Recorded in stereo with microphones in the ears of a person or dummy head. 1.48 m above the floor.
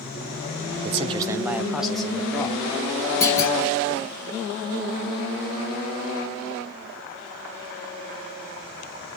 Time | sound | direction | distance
0.8 | a man speaking | 40° right (ahead or behind) | 0.6 m
3.2 | a clunk | 15° left (ahead or behind) | 3.5 m